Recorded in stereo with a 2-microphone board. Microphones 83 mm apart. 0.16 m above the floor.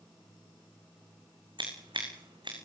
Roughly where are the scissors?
Right.